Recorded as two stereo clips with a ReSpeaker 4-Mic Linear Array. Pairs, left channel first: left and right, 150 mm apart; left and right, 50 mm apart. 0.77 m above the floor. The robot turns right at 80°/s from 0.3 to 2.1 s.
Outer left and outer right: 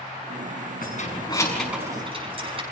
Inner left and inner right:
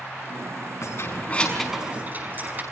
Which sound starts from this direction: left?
Keys jangling, at 0.8 s.